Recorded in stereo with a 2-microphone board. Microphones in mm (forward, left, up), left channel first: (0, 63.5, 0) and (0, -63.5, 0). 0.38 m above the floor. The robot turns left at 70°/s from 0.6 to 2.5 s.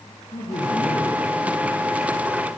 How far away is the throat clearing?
No throat clearing in this recording.